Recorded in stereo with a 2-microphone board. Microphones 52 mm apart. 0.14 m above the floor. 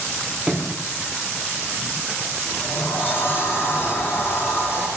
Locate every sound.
0.5 s a sliding door: 15° right (ahead or behind), 3.5 m
2.5 s a sliding door: 45° left (ahead or behind), 5.5 m